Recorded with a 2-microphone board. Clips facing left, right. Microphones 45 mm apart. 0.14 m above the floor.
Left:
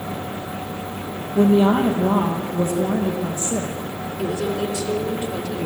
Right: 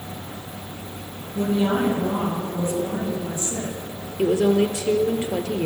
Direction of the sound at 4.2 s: 35° right (ahead or behind).